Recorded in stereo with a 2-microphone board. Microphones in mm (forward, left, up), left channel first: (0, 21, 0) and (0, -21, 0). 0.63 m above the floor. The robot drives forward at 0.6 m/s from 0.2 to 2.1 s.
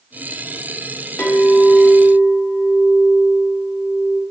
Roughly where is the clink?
Left.